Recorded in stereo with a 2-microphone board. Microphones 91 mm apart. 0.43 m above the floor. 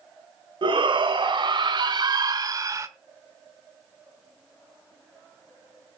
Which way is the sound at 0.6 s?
70° right (ahead or behind).